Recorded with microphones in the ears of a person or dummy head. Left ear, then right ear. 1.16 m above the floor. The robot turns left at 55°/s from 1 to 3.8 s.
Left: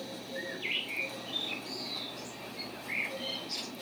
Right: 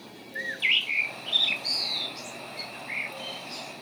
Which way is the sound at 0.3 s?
65° right.